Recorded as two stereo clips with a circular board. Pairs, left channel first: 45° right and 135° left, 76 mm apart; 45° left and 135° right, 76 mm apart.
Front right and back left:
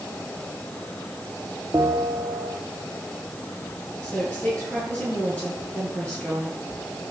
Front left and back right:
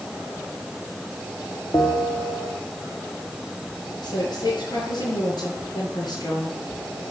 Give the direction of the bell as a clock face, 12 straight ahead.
9 o'clock.